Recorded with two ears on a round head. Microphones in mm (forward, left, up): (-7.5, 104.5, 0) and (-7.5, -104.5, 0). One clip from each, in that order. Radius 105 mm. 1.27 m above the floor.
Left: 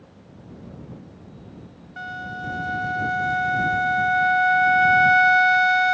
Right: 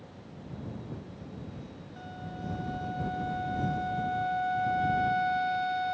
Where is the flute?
50° left (ahead or behind).